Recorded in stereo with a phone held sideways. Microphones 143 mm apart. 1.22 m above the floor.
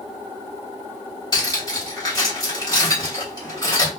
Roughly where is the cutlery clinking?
Left.